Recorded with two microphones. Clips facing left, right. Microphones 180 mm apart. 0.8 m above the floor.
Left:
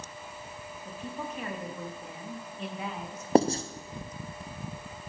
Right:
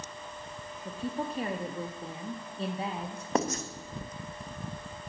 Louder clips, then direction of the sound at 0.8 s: Right 5 dB; 30° right (ahead or behind).